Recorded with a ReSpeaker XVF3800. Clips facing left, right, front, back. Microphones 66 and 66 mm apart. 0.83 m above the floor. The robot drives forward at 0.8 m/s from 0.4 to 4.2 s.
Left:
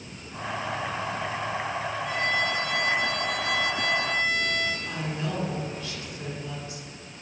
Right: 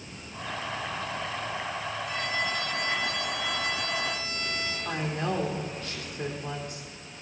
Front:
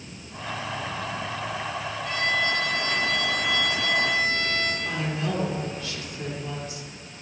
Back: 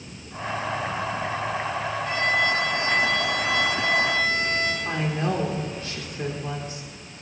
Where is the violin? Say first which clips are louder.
Left 5 dB, back 2 dB; 110° left, 6 m; by 4.8 s 125° left, 7 m.